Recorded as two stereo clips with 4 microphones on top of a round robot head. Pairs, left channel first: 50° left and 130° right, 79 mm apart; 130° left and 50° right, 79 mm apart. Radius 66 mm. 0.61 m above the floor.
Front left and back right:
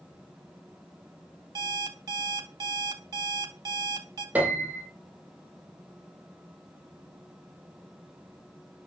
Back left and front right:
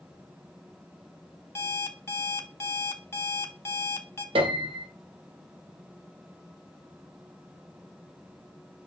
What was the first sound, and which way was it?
An alarm clock, 170° right.